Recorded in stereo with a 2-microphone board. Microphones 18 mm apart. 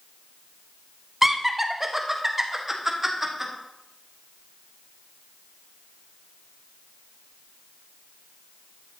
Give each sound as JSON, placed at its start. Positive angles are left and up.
{"t": 1.2, "sound": "laughter", "side_deg": -20, "distance_m": 0.8}